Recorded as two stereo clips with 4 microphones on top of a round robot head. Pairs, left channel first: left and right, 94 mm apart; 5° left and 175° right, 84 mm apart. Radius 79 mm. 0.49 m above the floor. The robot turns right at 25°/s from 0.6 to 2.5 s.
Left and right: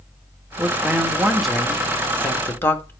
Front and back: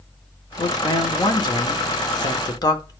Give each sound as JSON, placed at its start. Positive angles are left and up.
{"t": 0.6, "sound": "a man speaking", "azimuth_deg": -20, "distance_m": 1.2}